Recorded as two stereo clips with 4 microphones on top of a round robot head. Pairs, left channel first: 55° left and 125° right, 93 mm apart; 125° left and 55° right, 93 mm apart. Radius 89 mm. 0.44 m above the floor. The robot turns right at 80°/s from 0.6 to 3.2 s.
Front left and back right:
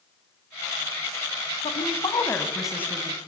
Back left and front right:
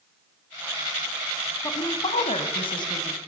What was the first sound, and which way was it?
A woman speaking, 70° left.